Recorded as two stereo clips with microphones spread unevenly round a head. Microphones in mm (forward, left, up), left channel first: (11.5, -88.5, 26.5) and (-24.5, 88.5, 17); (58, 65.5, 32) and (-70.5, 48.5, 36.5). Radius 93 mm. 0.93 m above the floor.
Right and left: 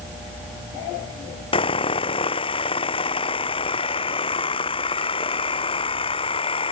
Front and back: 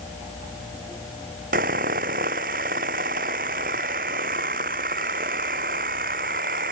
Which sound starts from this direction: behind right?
Sawing, at 1.5 s.